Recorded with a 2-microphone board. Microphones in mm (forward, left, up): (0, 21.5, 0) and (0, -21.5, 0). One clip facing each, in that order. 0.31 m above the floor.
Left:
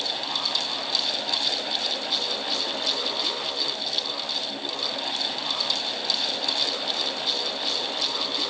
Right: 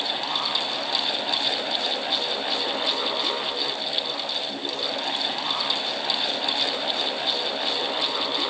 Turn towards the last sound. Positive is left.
No sound to turn to.